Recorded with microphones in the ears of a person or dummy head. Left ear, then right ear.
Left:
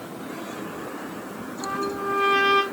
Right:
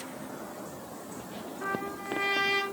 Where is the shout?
I don't hear a shout.